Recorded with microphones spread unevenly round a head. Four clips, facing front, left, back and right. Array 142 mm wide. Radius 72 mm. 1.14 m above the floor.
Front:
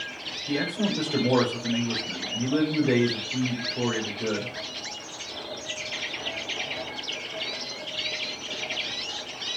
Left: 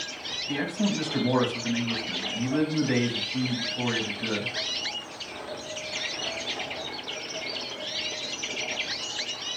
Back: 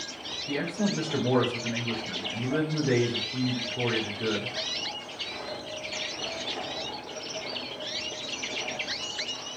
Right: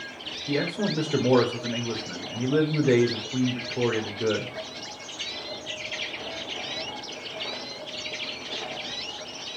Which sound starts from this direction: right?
A man speaking, at 0.5 s.